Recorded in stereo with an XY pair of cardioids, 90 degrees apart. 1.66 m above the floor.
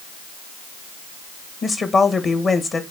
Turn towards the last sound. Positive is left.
turn(degrees=45)